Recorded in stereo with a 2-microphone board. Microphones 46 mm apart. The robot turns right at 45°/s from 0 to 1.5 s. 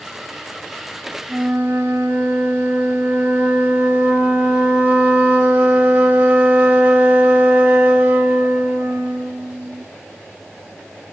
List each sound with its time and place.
1.3 s a flute: 35° right (ahead or behind), 0.9 m